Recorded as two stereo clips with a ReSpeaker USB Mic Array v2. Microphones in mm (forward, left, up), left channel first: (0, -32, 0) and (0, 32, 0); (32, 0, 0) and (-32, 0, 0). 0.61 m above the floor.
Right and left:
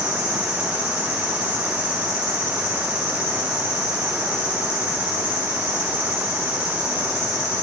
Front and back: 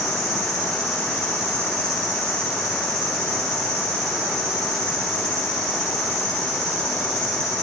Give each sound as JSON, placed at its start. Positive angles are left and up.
{"t": 0.0, "sound": "an insect", "azimuth_deg": 150, "distance_m": 2.5}